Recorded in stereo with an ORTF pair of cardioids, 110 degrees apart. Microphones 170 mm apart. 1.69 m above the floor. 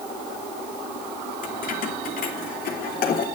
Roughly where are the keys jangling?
Ahead left.